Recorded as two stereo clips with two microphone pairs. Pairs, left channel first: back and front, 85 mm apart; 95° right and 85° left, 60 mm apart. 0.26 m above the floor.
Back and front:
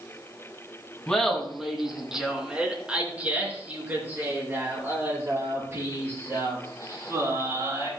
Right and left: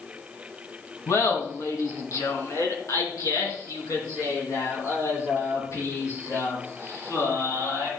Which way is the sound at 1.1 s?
105° right.